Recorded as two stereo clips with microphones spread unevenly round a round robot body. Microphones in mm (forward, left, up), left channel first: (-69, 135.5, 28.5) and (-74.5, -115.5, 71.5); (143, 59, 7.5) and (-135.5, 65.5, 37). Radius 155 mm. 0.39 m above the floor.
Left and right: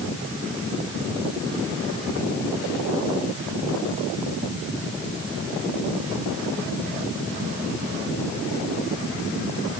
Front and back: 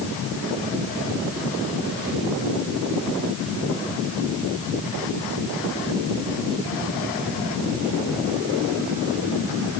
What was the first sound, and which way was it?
Only background noise.